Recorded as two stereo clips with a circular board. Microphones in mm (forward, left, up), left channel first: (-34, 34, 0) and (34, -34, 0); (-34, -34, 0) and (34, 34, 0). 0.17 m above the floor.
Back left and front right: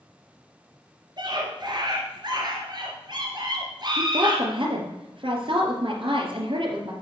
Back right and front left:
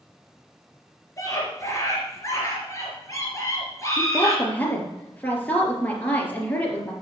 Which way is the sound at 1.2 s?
80° right.